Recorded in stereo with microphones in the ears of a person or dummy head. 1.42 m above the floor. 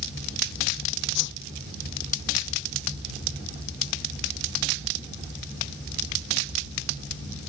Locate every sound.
1.1 s a whoosh: 65° left (ahead or behind)